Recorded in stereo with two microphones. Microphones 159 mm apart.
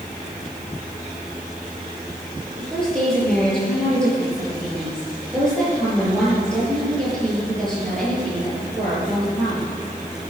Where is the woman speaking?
5° left (ahead or behind), 7.5 m.